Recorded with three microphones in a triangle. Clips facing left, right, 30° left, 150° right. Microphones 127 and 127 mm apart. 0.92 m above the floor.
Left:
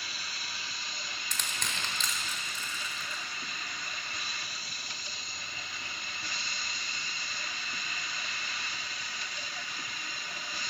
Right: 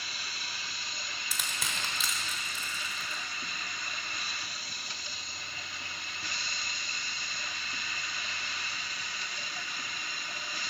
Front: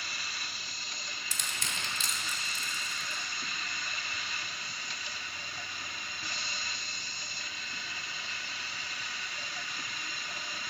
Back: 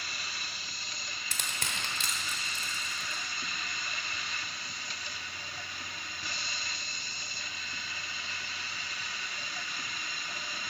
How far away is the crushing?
About 1.4 m.